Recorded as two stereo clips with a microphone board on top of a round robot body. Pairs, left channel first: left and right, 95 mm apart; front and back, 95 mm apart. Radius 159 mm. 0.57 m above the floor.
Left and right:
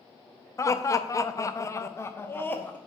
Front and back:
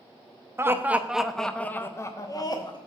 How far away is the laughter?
About 0.9 m.